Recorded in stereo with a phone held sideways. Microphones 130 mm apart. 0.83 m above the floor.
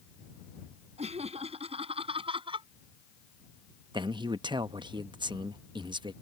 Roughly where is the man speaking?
Right.